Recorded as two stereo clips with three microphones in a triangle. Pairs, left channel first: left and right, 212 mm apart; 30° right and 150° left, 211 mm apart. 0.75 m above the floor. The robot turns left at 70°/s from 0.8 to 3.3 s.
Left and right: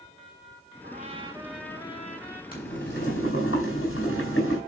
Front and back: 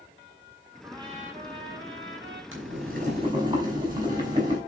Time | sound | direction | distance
0.8 | a trumpet | 130° right | 3.5 m
2.5 | boiling | 135° left | 5 m